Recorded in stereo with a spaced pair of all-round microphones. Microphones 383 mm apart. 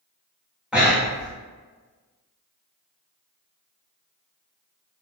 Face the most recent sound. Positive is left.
turn(degrees=-5)  # may be behind; listen again after turning